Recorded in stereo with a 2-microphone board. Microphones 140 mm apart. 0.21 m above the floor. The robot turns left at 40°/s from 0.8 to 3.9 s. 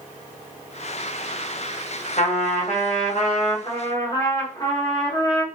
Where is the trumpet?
105° left, 2.5 m; by 5.5 s 35° left, 2.5 m.